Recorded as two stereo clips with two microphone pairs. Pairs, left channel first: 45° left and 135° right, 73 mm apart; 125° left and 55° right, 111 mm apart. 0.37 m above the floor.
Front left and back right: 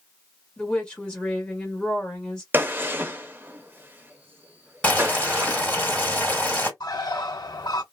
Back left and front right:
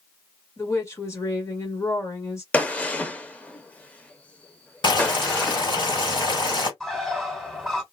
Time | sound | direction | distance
0.6 | a woman speaking | 105° left | 1.2 m
2.5 | a gunshot | 165° right | 0.6 m
4.8 | boiling | 115° left | 2 m
6.8 | a bird | 40° left | 1.0 m